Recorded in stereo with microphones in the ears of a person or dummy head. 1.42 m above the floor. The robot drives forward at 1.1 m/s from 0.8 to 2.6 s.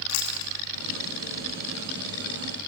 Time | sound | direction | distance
0.1 | chewing | 80° left | 3 m